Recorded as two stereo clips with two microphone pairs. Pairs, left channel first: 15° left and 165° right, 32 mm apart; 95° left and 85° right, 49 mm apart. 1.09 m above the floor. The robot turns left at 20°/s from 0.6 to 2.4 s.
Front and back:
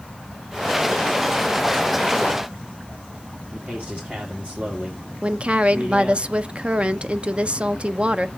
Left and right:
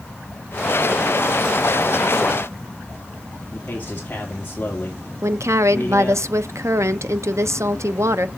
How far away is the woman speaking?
About 0.6 m.